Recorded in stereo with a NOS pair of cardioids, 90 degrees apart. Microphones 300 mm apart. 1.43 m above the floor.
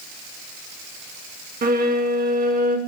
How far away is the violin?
About 1.0 m.